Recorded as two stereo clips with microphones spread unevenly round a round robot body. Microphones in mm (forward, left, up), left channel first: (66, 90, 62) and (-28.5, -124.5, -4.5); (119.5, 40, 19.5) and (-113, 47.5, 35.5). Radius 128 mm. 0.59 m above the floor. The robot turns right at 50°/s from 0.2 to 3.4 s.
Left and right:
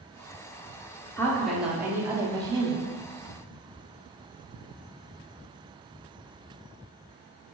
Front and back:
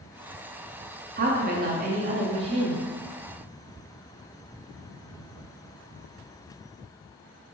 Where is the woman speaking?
165° left, 0.7 m; by 2.9 s 110° right, 0.7 m.